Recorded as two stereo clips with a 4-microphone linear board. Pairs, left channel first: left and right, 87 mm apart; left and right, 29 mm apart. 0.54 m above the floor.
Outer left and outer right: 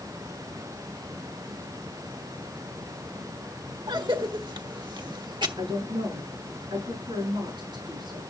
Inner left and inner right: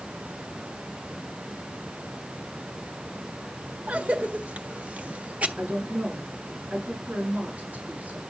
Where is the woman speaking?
60° right (ahead or behind), 8.5 m.